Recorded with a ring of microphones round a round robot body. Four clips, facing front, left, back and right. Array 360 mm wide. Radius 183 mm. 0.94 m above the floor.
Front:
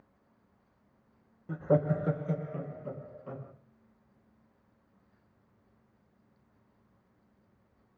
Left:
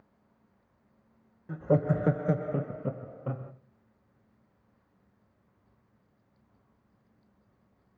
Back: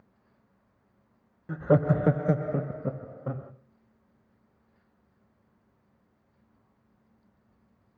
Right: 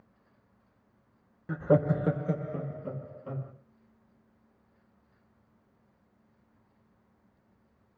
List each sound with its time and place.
1.5 s laughter: 115° right, 0.6 m; by 3.5 s 145° left, 1.9 m